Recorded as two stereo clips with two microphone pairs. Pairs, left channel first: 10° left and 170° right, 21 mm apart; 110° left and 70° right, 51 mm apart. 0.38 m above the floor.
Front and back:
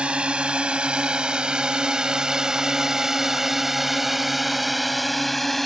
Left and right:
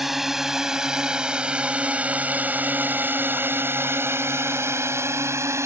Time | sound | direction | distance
0.0 | a drone | 155° right | ?